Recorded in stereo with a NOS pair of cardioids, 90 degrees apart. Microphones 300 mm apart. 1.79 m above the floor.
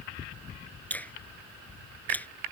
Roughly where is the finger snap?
Ahead.